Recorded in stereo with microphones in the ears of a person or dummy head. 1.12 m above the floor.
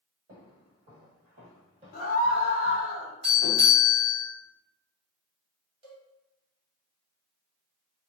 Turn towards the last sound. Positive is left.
turn(degrees=-35)  # may be behind; listen again after turning